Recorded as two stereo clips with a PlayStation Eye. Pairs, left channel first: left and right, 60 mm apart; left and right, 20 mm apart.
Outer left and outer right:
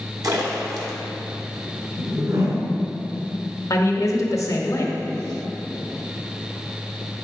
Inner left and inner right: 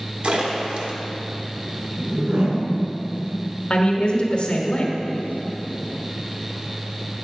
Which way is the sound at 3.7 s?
55° left (ahead or behind).